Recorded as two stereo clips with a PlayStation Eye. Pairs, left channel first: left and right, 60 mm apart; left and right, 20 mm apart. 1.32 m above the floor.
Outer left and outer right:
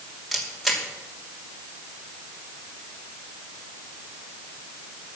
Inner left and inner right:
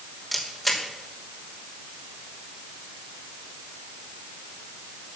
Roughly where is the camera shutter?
Centre.